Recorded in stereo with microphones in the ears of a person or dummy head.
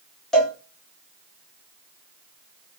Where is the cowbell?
5° left (ahead or behind), 1.1 m.